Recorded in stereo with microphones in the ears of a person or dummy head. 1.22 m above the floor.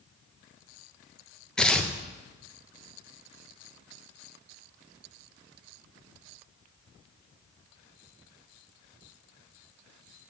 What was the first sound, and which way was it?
Tearing paper, 5° left (ahead or behind).